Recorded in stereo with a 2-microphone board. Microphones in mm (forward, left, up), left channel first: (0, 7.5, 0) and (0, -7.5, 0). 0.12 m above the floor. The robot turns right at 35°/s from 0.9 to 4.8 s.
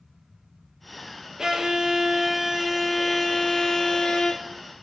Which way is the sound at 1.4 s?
50° right.